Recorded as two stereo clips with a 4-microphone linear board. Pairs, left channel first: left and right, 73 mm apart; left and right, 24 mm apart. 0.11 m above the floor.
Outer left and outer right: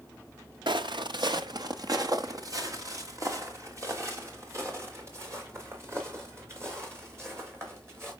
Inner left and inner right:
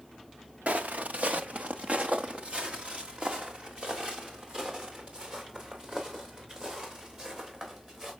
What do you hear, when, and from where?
0.7 s footsteps: 85° right, 0.7 m; by 8.1 s 30° right (ahead or behind), 5.5 m